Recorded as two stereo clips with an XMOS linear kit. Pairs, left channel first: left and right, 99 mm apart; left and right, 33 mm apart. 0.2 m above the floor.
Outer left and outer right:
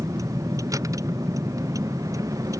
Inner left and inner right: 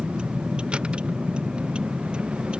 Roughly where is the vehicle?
Right.